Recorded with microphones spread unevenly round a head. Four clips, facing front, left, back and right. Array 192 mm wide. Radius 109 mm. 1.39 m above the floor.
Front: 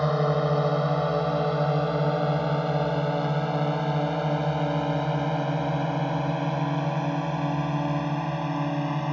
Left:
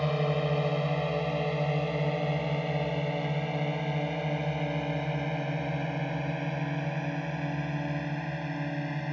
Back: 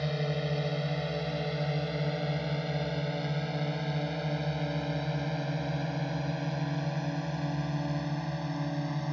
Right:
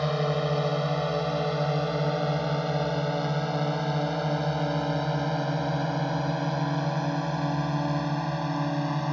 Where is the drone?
15° right; by 9.1 s 30° right.